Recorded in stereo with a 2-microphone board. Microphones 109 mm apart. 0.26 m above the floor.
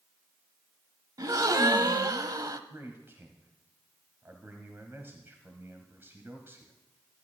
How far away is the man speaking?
About 1.2 m.